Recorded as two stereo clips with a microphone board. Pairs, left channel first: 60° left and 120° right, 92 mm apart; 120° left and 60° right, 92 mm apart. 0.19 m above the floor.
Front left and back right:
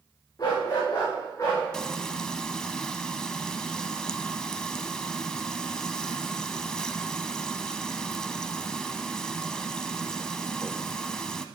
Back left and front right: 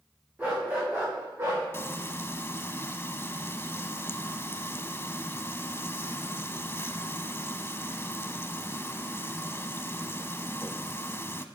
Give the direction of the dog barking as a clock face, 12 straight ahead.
12 o'clock.